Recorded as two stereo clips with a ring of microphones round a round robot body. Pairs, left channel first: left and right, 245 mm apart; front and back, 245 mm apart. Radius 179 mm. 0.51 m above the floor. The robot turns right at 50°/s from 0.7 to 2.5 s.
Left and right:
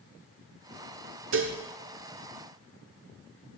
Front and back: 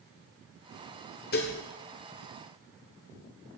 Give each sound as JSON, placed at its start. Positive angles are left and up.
{"t": 1.3, "sound": "dishes clattering", "azimuth_deg": -55, "distance_m": 1.2}